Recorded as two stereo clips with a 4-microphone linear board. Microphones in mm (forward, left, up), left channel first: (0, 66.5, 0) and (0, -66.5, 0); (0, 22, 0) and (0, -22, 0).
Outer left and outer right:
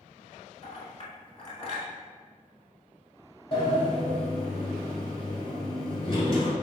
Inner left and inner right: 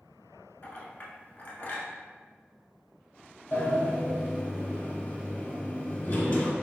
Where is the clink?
45° left (ahead or behind), 0.9 m.